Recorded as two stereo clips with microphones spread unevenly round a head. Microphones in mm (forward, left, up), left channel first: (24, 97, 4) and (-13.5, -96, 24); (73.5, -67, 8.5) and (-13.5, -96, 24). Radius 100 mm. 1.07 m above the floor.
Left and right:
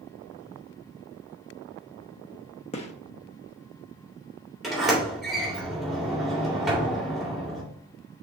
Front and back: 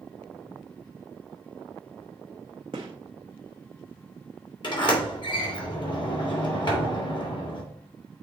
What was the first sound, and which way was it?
A gunshot, 140° left.